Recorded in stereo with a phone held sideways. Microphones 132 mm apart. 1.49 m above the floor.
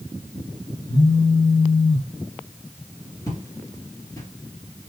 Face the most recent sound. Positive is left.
turn(degrees=30)  # may be behind; listen again after turning